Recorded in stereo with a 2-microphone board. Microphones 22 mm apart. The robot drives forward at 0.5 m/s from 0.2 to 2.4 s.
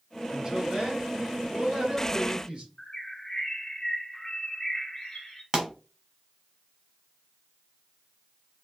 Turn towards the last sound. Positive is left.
turn(degrees=-25)  # may be behind; listen again after turning